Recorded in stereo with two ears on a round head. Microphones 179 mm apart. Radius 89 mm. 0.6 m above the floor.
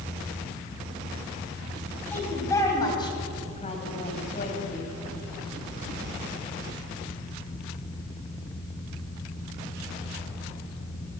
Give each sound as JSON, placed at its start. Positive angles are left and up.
{"t": 2.1, "sound": "a woman speaking", "side_deg": 10, "distance_m": 4.0}